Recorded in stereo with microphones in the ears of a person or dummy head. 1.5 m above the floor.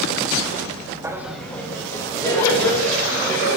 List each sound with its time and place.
1.0 s laughter: 20° right (ahead or behind), 0.7 m; by 3.6 s 20° left (ahead or behind), 4 m